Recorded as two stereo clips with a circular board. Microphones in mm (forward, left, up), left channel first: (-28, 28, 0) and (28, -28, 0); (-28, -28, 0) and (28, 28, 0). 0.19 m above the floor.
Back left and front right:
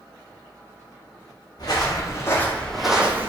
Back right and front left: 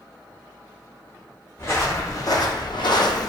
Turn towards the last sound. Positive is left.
turn(degrees=-105)